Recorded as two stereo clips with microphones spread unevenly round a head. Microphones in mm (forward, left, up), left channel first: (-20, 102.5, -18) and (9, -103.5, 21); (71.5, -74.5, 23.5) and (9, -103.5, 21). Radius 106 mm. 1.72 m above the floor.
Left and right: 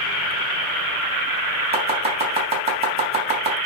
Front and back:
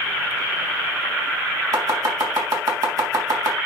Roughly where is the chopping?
Behind right.